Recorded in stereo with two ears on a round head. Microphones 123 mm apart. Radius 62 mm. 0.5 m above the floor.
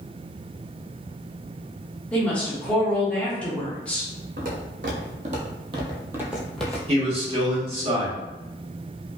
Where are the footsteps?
70° right (ahead or behind), 1.3 m; by 6.8 s 10° left (ahead or behind), 0.8 m.